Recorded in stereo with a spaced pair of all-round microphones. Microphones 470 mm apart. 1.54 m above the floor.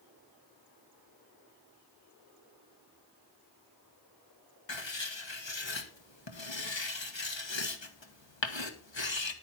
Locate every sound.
4.7 s writing: 65° left (ahead or behind), 1.3 m